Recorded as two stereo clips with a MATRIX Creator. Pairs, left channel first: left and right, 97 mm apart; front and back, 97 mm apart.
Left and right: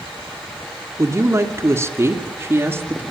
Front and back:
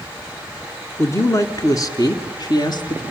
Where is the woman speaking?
45° right, 1.9 m; by 3.0 s 25° right, 2.5 m.